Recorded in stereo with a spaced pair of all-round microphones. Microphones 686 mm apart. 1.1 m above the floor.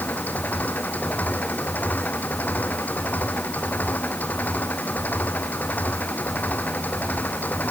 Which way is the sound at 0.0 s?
Centre (ahead or behind).